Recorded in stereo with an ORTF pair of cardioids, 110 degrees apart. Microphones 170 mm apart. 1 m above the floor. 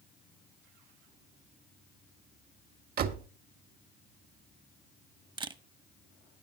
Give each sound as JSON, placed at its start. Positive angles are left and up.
{"t": 3.0, "sound": "a door slam", "azimuth_deg": -60, "distance_m": 1.4}
{"t": 5.4, "sound": "a camera shutter", "azimuth_deg": -30, "distance_m": 0.9}